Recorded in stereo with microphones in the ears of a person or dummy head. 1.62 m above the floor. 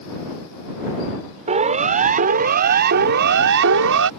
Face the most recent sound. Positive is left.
turn(degrees=-70)  # may be behind; listen again after turning